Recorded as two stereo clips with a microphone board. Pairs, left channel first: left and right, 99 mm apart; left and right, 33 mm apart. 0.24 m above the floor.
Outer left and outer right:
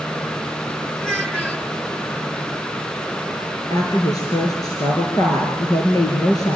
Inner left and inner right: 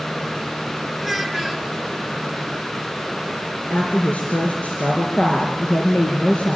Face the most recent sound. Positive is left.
turn(degrees=40)  # may be behind; listen again after turning